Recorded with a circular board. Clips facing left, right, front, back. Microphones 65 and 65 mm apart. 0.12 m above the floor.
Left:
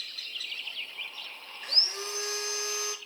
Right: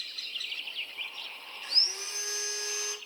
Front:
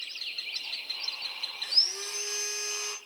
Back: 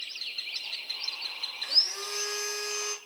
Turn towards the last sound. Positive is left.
turn(degrees=135)